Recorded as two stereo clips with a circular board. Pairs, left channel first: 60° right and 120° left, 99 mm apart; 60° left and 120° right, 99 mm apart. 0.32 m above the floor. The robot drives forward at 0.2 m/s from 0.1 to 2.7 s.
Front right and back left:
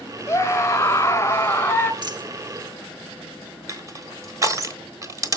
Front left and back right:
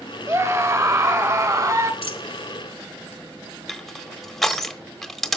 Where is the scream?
90° right, 1.7 m; by 1.9 s 110° right, 1.7 m.